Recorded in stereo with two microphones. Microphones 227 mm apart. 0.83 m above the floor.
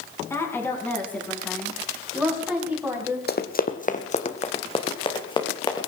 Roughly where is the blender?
I don't hear a blender.